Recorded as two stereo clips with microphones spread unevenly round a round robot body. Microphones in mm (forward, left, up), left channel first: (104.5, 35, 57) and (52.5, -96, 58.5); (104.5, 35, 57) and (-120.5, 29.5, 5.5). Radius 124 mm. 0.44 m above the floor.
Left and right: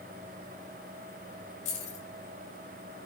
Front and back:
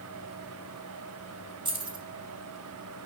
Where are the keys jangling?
115° left, 2 m.